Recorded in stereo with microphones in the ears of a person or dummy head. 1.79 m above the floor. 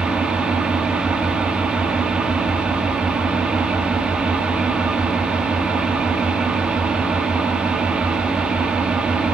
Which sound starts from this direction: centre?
An engine running, at 0.0 s.